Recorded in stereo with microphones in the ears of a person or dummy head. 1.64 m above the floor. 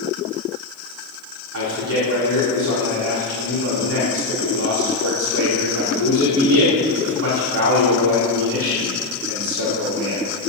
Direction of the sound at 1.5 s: 65° right (ahead or behind).